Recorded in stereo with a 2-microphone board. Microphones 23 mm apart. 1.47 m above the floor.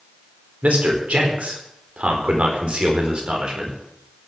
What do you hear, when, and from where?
0.6 s a man speaking: 65° right (ahead or behind), 4.5 m; by 3.8 s 35° right (ahead or behind), 5 m